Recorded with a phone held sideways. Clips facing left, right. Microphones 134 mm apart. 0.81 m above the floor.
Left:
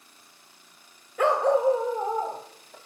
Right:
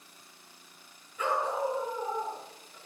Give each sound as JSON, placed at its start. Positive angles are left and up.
{"t": 1.2, "sound": "a dog barking", "side_deg": 70, "distance_m": 1.4}